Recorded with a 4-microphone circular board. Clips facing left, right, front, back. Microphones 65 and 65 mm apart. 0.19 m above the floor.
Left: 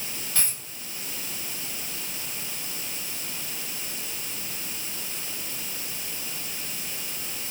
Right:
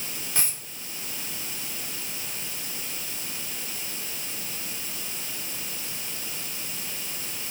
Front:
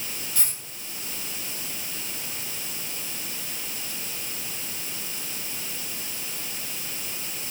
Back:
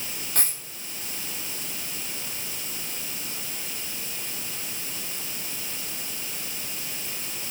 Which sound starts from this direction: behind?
A dropped coin, at 0.3 s.